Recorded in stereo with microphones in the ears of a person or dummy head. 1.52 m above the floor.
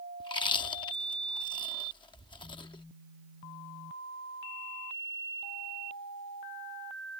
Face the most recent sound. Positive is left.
turn(degrees=30)  # may be behind; listen again after turning